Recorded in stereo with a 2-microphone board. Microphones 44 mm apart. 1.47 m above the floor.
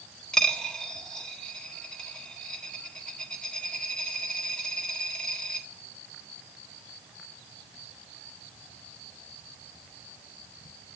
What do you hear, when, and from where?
0.3 s a dropped coin: 15° left (ahead or behind), 1.0 m